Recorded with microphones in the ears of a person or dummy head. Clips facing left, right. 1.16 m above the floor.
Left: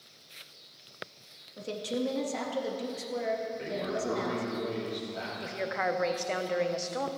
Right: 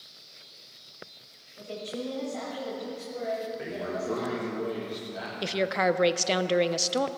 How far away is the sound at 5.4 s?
About 0.5 m.